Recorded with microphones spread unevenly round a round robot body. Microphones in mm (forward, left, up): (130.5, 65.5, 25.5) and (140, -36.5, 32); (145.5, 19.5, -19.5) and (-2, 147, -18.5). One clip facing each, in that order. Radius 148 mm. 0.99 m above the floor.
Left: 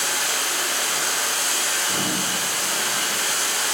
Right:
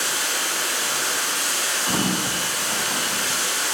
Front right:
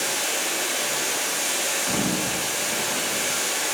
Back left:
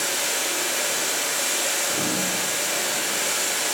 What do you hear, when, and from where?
0.0 s running water: 110° left, 1.4 m
1.9 s a sliding door: 50° right, 0.7 m